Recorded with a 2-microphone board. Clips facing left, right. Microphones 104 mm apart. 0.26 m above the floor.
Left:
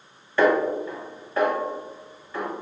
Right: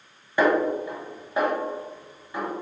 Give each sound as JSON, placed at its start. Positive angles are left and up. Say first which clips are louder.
{"t": 0.4, "sound": "a snare drum", "louder": "left 1 dB", "side_deg": -15, "distance_m": 1.1}